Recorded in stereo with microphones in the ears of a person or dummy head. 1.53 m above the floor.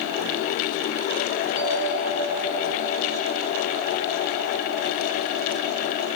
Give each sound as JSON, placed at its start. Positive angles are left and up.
{"t": 1.6, "sound": "a bell", "side_deg": 25, "distance_m": 3.5}